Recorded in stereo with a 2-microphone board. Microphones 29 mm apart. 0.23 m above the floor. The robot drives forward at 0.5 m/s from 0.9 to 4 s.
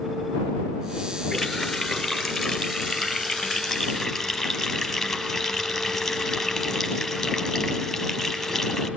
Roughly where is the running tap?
Centre.